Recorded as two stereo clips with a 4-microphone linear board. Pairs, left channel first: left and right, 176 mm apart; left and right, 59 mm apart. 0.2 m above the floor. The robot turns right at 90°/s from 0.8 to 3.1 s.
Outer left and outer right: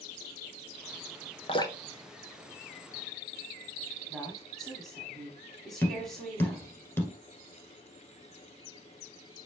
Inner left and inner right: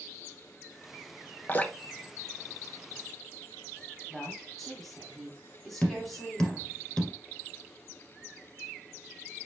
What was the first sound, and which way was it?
Dripping, 35° left (ahead or behind).